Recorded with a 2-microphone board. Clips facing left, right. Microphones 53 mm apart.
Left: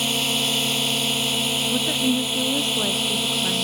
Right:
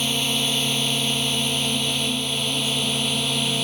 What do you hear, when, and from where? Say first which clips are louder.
0.0 s a drone: even; 10° left (ahead or behind); by 3.6 s 5° left (ahead or behind)
1.7 s a woman speaking: left 3 dB; 50° left (ahead or behind)